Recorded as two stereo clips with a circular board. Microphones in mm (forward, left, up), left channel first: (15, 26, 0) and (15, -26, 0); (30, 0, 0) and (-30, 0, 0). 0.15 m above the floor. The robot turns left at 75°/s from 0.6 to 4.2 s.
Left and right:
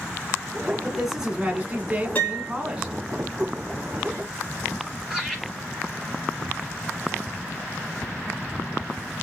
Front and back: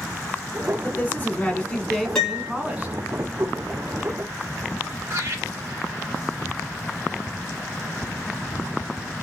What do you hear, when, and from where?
0.8 s a man speaking: 10° left, 1.3 m; by 3.0 s 150° right, 1.3 m
2.1 s a piano: 80° left, 1.5 m; by 2.5 s 50° left, 1.5 m
5.1 s laughter: 175° right, 1.6 m